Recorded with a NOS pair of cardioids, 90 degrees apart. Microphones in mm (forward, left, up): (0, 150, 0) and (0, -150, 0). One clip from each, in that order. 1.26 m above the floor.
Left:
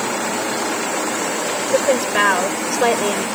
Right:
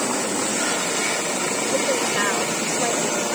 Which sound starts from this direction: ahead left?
A woman speaking, at 1.7 s.